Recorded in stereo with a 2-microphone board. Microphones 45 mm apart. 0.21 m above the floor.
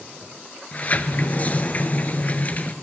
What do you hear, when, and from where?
0.7 s a sliding door: 35° left (ahead or behind), 0.7 m